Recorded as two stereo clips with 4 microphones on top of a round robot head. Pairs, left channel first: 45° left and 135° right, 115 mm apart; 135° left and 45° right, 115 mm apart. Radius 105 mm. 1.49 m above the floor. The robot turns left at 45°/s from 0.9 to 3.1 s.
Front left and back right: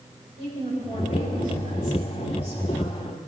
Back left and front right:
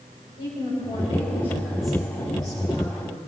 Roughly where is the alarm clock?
No alarm clock in this recording.